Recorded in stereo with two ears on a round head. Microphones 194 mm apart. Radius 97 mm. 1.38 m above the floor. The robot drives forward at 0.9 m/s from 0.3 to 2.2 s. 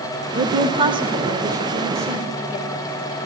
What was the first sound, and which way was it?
A woman speaking, 35° right (ahead or behind).